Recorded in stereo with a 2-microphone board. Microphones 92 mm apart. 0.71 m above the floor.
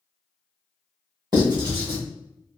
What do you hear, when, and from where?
1.3 s writing: 50° right (ahead or behind), 1.5 m